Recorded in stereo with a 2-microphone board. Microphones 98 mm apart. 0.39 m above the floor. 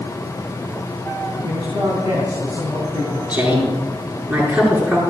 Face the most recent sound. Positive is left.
turn(degrees=-20)  # may be behind; listen again after turning